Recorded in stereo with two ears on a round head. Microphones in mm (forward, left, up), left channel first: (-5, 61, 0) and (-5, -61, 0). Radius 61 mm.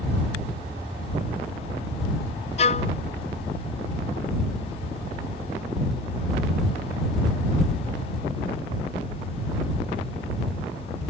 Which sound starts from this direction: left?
A violin, at 2.6 s.